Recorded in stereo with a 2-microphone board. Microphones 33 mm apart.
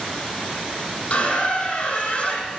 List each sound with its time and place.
1.1 s a squeak: 45° left (ahead or behind), 0.9 m